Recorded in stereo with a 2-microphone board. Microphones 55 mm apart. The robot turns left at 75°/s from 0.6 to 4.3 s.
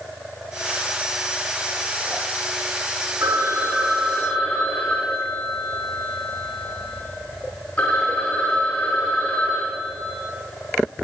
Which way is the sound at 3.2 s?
120° right.